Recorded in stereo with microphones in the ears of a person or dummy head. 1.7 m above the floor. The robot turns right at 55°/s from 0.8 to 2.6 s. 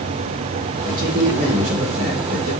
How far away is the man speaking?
About 1.7 m.